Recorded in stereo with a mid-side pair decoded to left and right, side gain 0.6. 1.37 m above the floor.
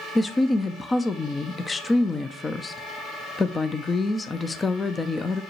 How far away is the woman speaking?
About 0.8 m.